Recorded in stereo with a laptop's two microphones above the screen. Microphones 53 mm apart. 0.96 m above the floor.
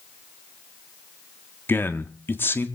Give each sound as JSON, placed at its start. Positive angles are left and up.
{"t": 1.7, "sound": "a man speaking", "side_deg": 45, "distance_m": 1.7}